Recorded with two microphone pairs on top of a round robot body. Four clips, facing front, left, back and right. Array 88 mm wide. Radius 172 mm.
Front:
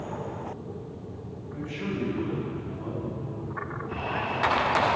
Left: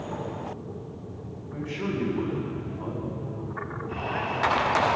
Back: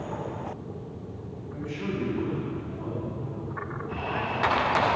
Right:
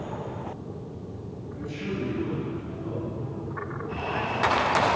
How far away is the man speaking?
About 9.5 m.